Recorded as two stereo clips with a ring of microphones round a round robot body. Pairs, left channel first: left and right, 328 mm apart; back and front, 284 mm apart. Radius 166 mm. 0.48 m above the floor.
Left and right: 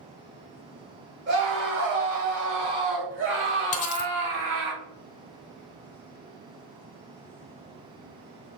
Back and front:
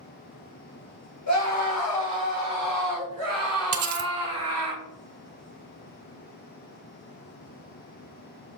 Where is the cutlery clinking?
20° left, 1.1 m.